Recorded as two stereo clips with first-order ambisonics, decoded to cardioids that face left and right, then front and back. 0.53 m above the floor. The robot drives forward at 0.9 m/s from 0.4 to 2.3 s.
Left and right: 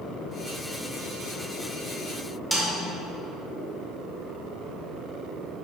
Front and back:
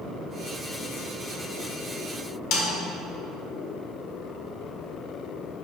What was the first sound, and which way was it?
A snare drum, straight ahead.